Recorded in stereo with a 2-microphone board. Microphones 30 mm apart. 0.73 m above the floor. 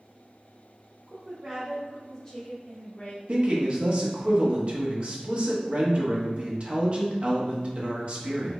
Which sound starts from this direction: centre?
A woman speaking, at 1.1 s.